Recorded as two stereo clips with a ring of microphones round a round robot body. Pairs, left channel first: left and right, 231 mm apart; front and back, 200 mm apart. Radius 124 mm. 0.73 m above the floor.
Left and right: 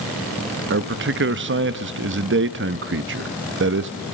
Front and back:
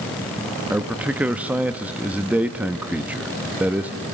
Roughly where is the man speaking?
Right.